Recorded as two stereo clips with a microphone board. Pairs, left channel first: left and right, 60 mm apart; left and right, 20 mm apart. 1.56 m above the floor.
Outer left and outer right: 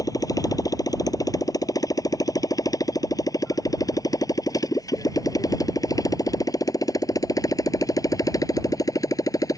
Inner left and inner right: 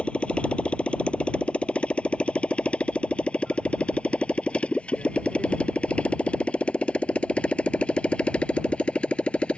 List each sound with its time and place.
0.0 s a motorcycle: 80° left; by 9.6 s 70° left (ahead or behind)